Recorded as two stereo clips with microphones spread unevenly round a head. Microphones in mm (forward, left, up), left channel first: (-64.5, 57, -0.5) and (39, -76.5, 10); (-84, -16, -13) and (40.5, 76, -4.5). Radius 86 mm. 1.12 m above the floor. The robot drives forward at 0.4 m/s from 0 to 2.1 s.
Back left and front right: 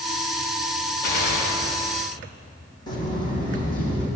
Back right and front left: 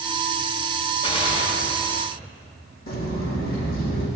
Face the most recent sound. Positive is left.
turn(degrees=-170)